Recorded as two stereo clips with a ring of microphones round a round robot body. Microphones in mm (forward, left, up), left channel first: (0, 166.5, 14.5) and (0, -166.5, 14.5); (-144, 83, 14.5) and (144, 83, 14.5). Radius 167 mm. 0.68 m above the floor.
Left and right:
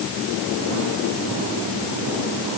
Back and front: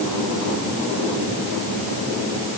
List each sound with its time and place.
Only background noise.